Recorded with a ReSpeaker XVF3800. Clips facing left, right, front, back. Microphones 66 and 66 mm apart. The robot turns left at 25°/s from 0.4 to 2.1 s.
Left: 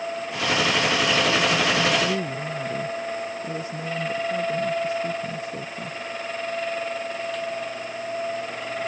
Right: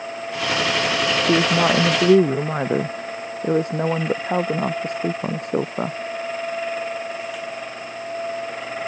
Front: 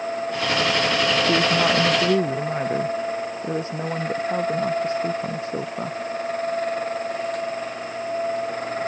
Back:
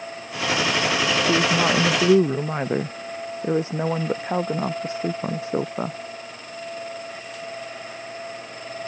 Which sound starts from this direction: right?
A woman speaking, at 1.3 s.